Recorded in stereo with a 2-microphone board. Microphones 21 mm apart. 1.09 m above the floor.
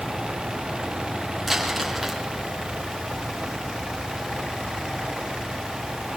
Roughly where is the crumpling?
Centre.